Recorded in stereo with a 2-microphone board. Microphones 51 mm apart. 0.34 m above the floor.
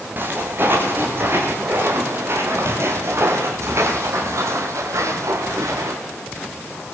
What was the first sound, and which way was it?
Footsteps, 45° right (ahead or behind).